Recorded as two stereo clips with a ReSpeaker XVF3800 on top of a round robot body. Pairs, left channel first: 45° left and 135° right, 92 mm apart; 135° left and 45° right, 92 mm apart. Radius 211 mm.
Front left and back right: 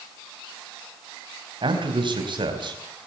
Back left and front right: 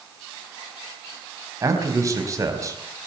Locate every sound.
1.6 s a man speaking: 100° right, 4 m